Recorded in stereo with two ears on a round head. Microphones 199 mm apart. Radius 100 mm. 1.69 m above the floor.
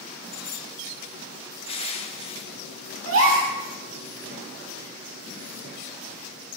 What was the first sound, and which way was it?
Crushing, 25° left (ahead or behind).